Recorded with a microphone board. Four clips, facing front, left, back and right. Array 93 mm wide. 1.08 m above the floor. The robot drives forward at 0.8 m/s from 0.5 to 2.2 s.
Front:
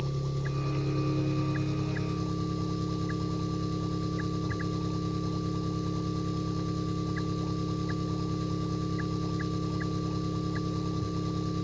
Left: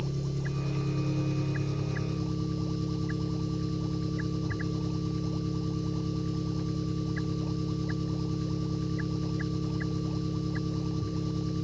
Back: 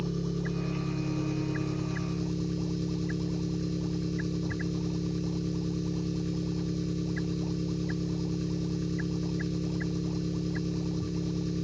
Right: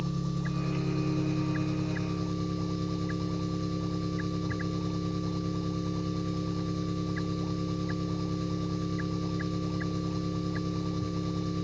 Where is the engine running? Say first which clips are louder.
Right 1 dB, back 2 dB; 40° right, 4 m; by 11.6 s 55° right, 3 m.